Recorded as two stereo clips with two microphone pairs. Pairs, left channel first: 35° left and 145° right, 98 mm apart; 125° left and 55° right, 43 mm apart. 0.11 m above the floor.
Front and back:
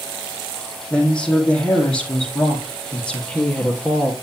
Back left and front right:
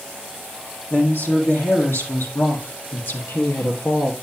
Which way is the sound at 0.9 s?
110° left.